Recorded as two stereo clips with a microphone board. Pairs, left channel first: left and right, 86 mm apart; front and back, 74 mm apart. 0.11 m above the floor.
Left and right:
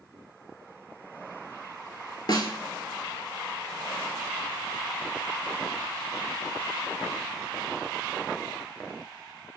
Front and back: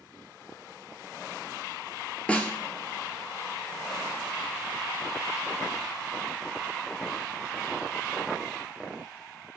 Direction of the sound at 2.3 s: 70° left.